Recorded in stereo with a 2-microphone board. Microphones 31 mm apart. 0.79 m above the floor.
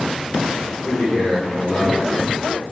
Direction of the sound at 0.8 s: 25° left (ahead or behind).